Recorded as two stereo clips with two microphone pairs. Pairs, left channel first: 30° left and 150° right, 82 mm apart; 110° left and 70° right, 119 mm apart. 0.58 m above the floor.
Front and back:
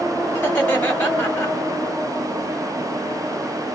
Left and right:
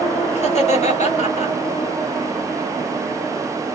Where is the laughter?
95° left, 1.9 m.